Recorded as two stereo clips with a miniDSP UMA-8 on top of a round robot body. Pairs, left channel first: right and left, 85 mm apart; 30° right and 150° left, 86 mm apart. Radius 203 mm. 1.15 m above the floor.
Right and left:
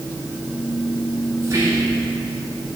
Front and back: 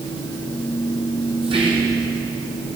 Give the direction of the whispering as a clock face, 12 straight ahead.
7 o'clock.